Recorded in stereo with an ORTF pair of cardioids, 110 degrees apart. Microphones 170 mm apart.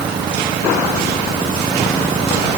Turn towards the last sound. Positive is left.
No sound to turn to.